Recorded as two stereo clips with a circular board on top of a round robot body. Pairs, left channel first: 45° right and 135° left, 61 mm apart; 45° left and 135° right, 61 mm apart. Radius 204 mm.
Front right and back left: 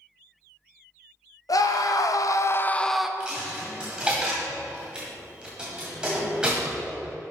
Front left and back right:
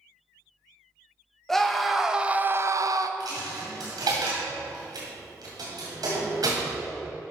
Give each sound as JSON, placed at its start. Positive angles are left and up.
{"t": 1.5, "sound": "a scream", "azimuth_deg": -40, "distance_m": 1.8}
{"t": 3.2, "sound": "a dropped coin", "azimuth_deg": -150, "distance_m": 1.8}